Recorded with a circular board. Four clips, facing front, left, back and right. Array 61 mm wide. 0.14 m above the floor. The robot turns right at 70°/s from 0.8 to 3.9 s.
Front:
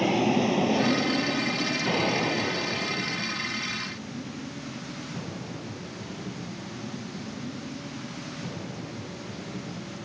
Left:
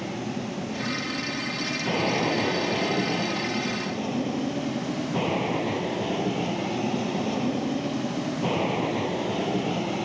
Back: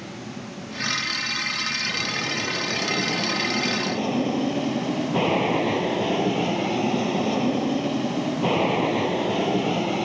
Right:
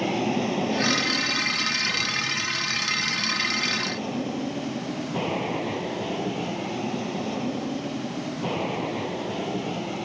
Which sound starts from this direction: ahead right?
An aircraft, at 0.0 s.